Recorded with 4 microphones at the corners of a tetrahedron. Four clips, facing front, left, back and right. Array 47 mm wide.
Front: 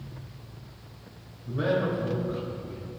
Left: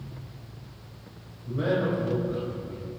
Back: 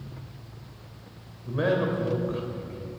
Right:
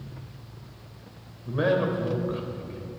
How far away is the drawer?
No drawer in this recording.